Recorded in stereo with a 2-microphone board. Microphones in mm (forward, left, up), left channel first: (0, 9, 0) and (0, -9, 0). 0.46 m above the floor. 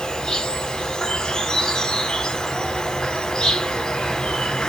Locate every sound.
0.0 s an insect: 70° left (ahead or behind), 0.9 m